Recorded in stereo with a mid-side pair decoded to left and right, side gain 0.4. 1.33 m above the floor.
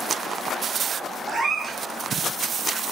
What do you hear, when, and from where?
1.3 s a cat meowing: 45° right, 1.7 m